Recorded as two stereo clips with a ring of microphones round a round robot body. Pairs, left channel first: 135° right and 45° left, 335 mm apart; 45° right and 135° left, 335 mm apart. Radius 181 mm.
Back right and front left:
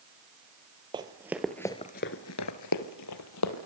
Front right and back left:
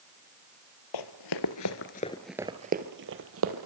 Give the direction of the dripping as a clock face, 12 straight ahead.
I don't hear dripping.